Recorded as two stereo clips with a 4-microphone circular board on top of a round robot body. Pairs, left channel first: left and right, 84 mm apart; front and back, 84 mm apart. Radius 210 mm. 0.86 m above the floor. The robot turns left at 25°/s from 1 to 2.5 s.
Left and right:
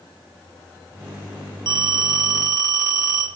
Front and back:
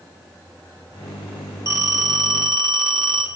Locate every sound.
1.7 s a phone ringing: 125° right, 1.7 m; by 3.3 s 145° right, 1.7 m